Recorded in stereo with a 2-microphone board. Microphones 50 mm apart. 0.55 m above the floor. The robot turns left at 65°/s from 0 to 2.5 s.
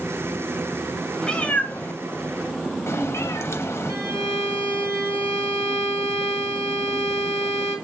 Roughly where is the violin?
Right.